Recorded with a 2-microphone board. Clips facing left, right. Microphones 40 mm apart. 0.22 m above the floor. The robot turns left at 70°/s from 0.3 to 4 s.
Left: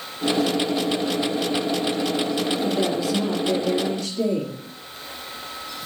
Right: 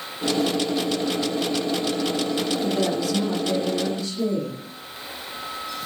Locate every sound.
2.6 s a woman speaking: straight behind, 4.5 m; by 4.6 s 85° left, 4.5 m